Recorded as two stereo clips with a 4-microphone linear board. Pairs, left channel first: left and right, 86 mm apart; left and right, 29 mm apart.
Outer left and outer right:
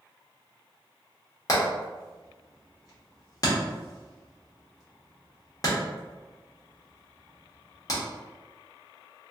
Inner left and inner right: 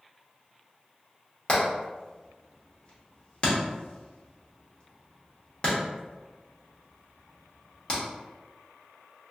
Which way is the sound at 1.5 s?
40° left (ahead or behind).